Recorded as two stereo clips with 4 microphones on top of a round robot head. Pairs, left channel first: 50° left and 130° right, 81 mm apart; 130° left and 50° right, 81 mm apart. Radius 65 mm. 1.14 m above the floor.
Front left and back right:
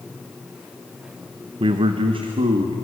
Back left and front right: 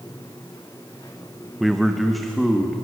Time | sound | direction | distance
1.6 | a man speaking | 135° right | 1.1 m